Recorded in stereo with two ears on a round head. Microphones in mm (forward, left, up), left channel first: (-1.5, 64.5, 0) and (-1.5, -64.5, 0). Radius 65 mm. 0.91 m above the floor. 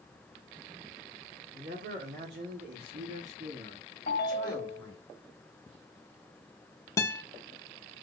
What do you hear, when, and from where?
1.5 s a man speaking: 75° right (ahead or behind), 2.0 m; by 5.0 s 5° left (ahead or behind), 1.6 m
4.1 s a ringtone: 70° left (ahead or behind), 1.0 m
7.0 s a guitar: 20° left (ahead or behind), 0.5 m